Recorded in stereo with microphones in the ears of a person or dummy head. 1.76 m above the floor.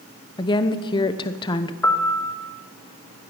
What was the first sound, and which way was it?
A woman speaking, 20° left (ahead or behind).